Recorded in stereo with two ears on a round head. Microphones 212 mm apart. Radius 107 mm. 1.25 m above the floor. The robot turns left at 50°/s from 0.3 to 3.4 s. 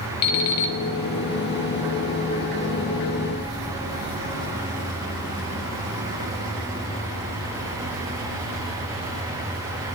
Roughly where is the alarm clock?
Left.